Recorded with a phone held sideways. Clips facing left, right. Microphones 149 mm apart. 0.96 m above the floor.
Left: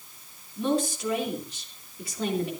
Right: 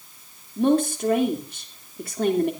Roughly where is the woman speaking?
Right.